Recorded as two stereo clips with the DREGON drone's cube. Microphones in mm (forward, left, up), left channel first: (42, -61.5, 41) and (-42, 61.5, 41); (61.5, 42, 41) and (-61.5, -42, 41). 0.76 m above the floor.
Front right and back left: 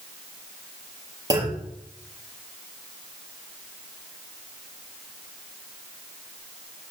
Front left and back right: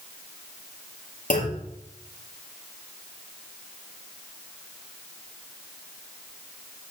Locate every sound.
1.3 s a clunk: 60° left, 6.5 m